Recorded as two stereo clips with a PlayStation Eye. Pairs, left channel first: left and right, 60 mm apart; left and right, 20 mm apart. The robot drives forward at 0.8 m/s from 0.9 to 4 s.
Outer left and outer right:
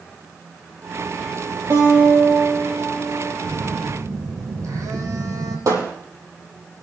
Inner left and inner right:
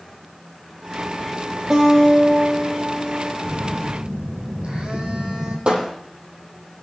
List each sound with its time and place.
1.7 s a guitar: 45° right (ahead or behind), 9.5 m; by 3.3 s 50° right (ahead or behind), 8.5 m
3.4 s a phone buzzing: 75° right (ahead or behind), 4 m; by 5.6 s 65° right (ahead or behind), 4 m
5.7 s hammering: 65° right (ahead or behind), 6 m